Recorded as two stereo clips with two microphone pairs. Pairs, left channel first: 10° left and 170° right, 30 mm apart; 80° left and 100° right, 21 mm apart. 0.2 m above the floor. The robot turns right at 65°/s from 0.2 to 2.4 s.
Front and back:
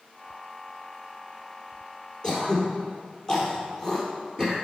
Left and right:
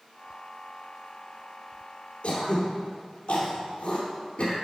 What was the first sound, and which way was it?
Throat clearing, 70° left.